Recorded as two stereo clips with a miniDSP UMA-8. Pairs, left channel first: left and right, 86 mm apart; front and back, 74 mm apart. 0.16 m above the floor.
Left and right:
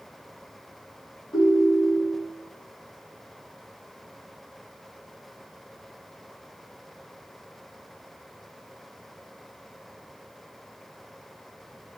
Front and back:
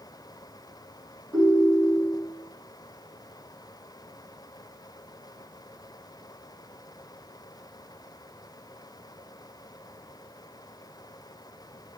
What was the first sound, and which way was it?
A ringtone, 130° left.